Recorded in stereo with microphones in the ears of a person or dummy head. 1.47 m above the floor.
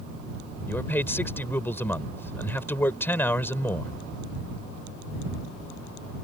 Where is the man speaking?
10° left (ahead or behind).